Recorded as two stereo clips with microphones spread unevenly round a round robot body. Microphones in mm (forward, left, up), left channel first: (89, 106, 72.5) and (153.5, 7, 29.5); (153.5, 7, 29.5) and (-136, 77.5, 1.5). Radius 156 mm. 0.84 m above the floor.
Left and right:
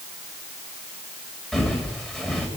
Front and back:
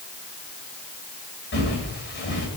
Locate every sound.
1.5 s footsteps: 40° left, 6.5 m